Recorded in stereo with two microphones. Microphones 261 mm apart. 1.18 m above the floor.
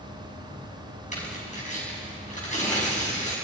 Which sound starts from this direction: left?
Tearing paper, at 1.1 s.